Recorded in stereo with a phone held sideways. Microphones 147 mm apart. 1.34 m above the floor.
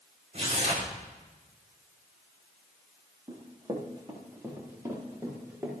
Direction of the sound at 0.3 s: 50° right (ahead or behind).